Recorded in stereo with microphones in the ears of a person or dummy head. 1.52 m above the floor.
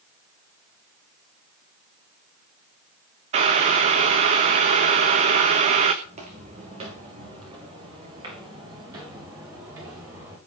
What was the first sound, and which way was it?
Boiling, 35° right (ahead or behind).